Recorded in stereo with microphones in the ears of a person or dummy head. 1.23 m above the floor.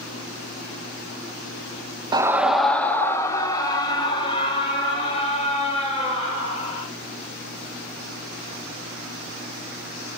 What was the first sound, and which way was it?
A scream, 20° right (ahead or behind).